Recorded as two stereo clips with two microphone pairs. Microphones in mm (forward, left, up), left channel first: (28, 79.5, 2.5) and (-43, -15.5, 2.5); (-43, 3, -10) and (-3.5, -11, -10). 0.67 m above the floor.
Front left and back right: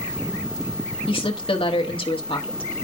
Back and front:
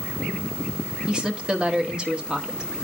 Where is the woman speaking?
45° left, 1.5 m.